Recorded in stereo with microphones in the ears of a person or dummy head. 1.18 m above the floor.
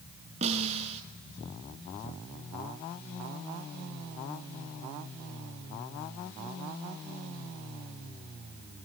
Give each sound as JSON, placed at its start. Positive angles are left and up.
{"t": 0.4, "sound": "a snare drum", "side_deg": -40, "distance_m": 4.5}